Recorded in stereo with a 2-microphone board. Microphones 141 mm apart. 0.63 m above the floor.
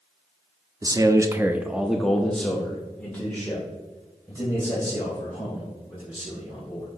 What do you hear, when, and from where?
0.8 s a man speaking: 25° right (ahead or behind), 0.7 m; by 6.9 s 15° left (ahead or behind), 4.5 m